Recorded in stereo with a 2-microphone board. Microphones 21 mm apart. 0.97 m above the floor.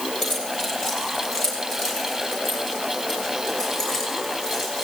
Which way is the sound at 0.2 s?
Centre (ahead or behind).